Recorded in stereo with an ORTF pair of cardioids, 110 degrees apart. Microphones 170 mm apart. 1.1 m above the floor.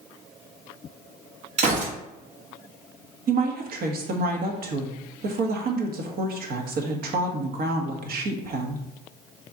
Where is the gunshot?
45° right, 2 m.